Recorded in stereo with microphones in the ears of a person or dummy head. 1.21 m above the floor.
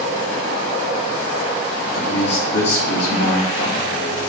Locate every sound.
1.9 s a man speaking: 70° left (ahead or behind), 2.5 m